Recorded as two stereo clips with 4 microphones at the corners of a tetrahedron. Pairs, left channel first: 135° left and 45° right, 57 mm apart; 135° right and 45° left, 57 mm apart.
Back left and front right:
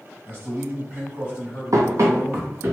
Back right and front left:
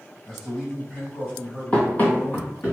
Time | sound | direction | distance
0.2 | a man speaking | 55° right | 1.8 m
1.7 | running footsteps | 65° right | 0.7 m